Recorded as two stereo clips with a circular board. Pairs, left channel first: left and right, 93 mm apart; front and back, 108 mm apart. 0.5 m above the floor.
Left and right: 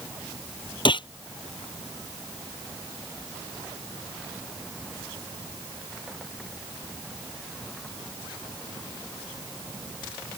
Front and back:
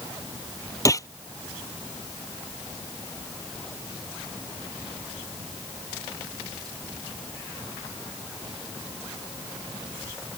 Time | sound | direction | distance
0.8 | a gunshot | 60° left | ?